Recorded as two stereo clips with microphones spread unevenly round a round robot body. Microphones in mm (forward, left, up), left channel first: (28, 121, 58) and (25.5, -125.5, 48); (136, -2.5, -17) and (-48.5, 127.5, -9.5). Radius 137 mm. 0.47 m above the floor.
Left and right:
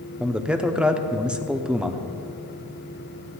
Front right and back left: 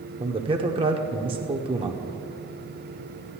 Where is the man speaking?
170° right, 0.8 m.